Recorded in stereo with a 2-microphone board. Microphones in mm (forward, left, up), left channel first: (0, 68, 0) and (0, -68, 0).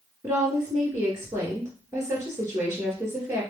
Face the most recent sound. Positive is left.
turn(degrees=-20)  # may be behind; listen again after turning